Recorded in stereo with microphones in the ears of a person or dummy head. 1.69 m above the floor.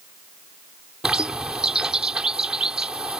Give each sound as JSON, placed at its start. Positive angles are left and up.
{"t": 1.0, "sound": "a bird", "side_deg": 0}